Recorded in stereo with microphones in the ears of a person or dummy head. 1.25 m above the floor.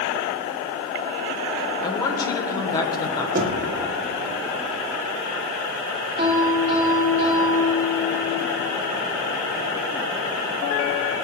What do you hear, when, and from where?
1.8 s a woman speaking: 25° left (ahead or behind), 1.1 m
3.4 s knocking: 45° right (ahead or behind), 0.5 m
6.2 s a piano: 25° right (ahead or behind), 1.4 m